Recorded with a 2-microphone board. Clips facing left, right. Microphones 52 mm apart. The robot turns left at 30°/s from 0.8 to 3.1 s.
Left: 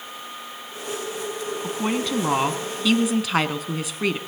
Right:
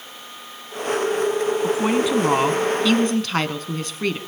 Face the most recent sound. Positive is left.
turn(degrees=170)